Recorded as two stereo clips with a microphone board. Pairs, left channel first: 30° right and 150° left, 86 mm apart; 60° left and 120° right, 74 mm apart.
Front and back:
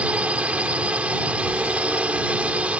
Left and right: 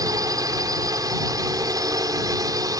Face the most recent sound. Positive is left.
turn(degrees=-135)